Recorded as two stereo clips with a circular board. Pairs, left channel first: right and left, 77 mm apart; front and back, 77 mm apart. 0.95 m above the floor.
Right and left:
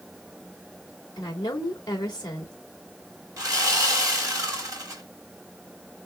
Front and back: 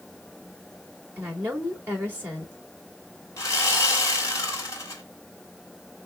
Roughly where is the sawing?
Ahead left.